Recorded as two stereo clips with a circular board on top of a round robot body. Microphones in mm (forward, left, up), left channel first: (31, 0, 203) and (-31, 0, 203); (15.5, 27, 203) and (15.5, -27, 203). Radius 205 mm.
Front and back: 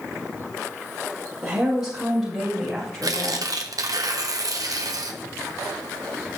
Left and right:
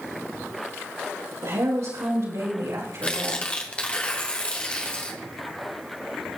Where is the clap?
I don't hear a clap.